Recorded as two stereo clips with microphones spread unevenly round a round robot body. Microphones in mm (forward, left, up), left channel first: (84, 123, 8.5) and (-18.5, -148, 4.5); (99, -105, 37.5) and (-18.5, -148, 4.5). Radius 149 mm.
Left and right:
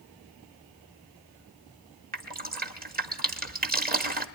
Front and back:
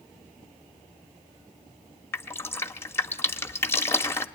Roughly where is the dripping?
Ahead right.